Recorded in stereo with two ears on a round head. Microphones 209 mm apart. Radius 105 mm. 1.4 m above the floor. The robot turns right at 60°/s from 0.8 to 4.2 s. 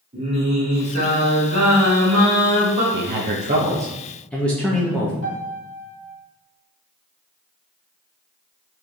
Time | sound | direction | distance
0.1 | singing | 155° right | 1.7 m
2.9 | a man speaking | 70° right | 0.7 m
5.2 | a piano | 75° left (ahead or behind) | 1.4 m